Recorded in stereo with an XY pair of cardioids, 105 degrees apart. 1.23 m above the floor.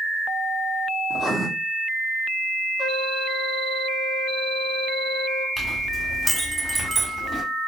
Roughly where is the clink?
Ahead.